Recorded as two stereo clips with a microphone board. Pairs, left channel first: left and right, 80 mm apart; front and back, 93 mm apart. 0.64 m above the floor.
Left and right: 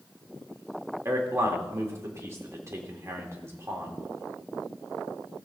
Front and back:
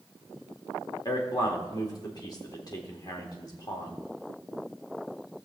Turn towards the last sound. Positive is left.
turn(degrees=-40)